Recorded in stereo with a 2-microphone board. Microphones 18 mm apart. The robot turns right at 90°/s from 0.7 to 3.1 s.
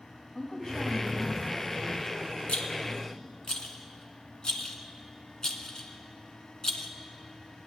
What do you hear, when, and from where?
0.3 s a woman speaking: 140° left, 3 m; by 3.1 s straight ahead, 3 m
2.5 s a rattle: 85° left, 0.9 m; by 6.9 s 40° left (ahead or behind), 0.9 m